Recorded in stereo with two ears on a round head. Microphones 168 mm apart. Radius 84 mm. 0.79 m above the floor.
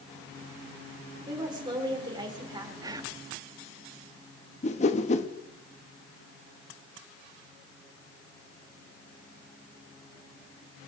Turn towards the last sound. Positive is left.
turn(degrees=40)  # may be behind; listen again after turning